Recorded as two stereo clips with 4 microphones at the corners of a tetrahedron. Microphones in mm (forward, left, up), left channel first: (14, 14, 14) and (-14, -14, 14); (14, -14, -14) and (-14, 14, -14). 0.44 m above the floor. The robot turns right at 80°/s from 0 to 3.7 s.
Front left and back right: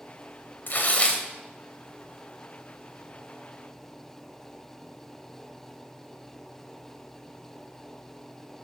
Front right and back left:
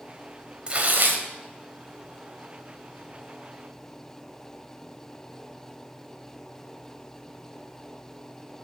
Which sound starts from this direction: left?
Tearing paper, at 0.7 s.